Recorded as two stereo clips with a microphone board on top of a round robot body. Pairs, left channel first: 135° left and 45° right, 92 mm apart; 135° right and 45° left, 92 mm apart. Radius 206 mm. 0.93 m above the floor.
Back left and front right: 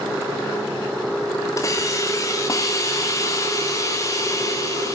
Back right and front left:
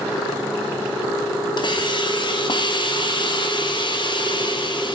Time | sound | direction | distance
1.6 | a hiss | 170° right | 3 m